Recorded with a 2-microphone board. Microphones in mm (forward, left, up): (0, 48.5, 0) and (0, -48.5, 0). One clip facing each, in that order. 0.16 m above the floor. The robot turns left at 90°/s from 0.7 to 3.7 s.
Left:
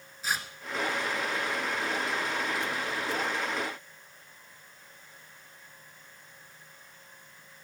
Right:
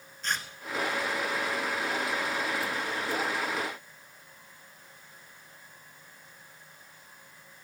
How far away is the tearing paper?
About 1.1 m.